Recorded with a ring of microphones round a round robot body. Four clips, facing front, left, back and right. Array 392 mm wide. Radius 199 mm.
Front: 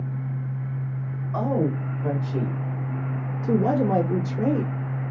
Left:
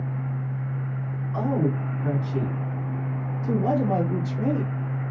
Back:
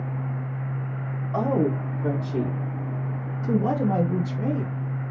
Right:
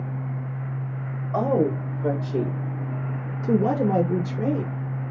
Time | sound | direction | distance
1.3 | a woman speaking | 125° right | 1.9 m